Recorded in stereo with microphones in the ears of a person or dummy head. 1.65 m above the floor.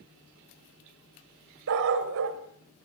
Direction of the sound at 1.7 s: 65° right (ahead or behind).